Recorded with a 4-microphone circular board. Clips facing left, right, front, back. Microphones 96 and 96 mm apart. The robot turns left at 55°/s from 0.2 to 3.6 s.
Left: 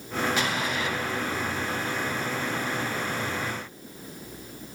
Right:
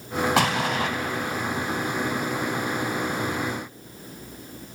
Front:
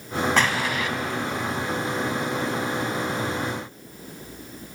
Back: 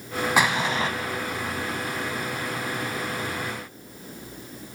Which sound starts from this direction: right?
An explosion, at 0.4 s.